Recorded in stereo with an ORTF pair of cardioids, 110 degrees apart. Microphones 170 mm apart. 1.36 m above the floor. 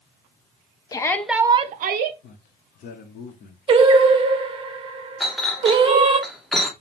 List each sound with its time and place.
0.9 s a shout: 25° left, 0.7 m; by 2.1 s 75° right, 0.7 m
2.2 s a man speaking: 60° left, 0.8 m
3.7 s singing: 35° right, 0.7 m
5.2 s a clink: straight ahead, 0.9 m